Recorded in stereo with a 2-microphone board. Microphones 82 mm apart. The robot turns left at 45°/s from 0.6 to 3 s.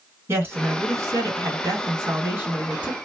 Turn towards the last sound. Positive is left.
turn(degrees=-165)